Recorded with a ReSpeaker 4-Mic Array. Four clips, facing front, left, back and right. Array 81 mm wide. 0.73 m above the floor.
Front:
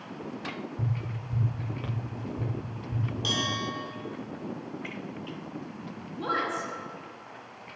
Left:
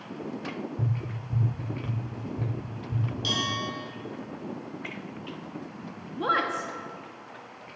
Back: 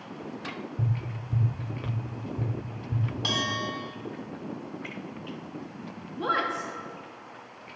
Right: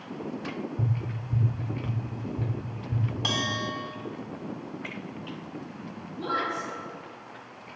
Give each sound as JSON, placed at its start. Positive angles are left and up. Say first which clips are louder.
{"t": 0.8, "sound": "tapping", "louder": "right 1 dB, back 1 dB", "azimuth_deg": -160, "distance_m": 1.7}
{"t": 3.2, "sound": "a bell", "louder": "right 1 dB, back 1 dB", "azimuth_deg": -115, "distance_m": 1.2}
{"t": 6.2, "sound": "a woman speaking", "louder": "left 3 dB, back 2 dB", "azimuth_deg": 115, "distance_m": 1.1}